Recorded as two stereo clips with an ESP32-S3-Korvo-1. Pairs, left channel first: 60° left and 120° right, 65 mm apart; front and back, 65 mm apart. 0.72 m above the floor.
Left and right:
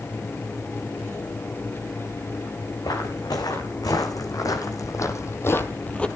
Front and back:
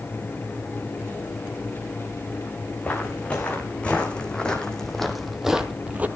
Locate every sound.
2.8 s footsteps: 70° left, 3 m; by 6.1 s 130° left, 0.9 m